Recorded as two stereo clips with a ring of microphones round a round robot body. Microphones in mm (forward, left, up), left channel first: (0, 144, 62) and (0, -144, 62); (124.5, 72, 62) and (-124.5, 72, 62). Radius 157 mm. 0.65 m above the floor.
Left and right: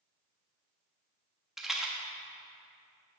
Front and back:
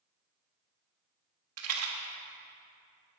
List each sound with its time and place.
1.6 s a rattle: straight behind, 1.3 m